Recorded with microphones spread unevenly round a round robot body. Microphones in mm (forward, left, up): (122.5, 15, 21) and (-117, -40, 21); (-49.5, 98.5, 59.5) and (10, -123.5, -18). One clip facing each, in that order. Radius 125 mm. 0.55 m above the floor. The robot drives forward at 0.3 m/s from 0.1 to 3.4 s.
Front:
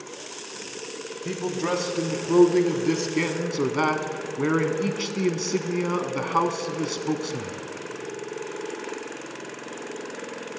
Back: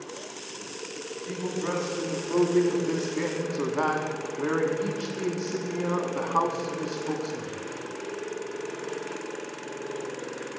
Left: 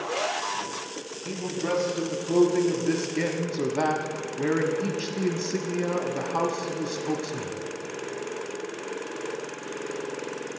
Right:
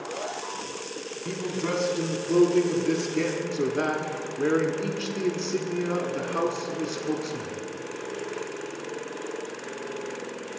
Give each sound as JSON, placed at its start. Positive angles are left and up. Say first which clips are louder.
{"t": 1.2, "sound": "a man speaking", "louder": "front 4 dB, even", "azimuth_deg": 5, "distance_m": 1.2}